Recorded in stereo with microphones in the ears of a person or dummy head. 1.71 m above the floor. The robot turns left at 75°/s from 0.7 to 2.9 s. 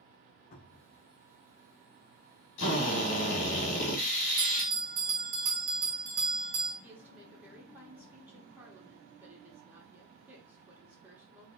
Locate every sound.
0.5 s a cupboard door: 50° left (ahead or behind), 0.7 m; by 1.0 s 70° left (ahead or behind), 0.7 m
2.6 s a drill: 70° left (ahead or behind), 1.4 m; by 4.7 s 50° left (ahead or behind), 1.4 m
4.4 s a bell: 45° right (ahead or behind), 1.0 m
6.8 s a woman speaking: 15° right (ahead or behind), 0.9 m